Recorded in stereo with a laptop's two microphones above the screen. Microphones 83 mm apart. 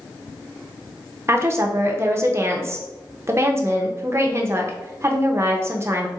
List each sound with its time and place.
1.3 s a woman speaking: 35° right (ahead or behind), 0.6 m